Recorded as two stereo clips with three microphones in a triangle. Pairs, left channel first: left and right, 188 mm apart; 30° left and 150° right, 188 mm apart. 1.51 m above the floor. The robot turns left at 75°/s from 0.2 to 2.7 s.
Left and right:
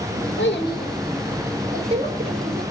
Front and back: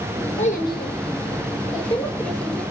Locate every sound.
0.4 s a child speaking: 85° left, 4 m; by 2.6 s 85° right, 4 m